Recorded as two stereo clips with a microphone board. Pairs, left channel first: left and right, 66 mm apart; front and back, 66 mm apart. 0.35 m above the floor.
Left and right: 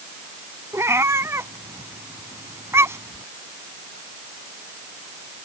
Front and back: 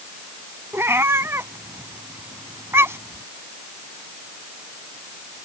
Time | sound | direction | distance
0.7 | a cat meowing | 130° right | ?